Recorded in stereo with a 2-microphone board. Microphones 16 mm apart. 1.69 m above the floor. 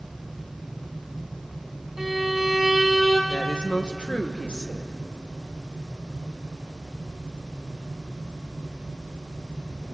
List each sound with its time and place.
2.0 s a violin: 30° right (ahead or behind), 6 m
3.3 s a woman speaking: 80° left, 1.6 m